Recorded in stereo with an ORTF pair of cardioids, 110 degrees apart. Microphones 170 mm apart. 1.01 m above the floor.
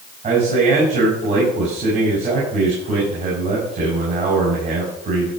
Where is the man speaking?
45° right, 6.5 m.